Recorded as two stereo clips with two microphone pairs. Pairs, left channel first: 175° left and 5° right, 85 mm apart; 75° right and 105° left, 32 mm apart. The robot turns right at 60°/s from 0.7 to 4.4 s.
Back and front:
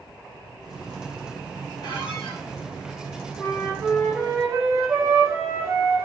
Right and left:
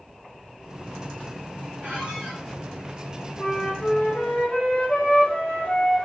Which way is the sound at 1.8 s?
150° left.